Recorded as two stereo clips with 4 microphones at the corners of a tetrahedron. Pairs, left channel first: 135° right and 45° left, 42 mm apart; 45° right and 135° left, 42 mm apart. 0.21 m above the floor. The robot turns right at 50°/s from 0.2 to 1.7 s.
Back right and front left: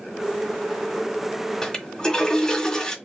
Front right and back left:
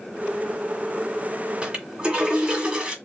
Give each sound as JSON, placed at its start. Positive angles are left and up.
{"t": 1.6, "sound": "a toilet flushing", "azimuth_deg": 175, "distance_m": 1.4}